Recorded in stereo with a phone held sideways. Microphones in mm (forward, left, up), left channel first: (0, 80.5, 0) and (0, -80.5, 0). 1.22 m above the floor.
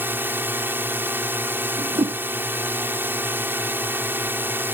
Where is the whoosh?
40° right (ahead or behind).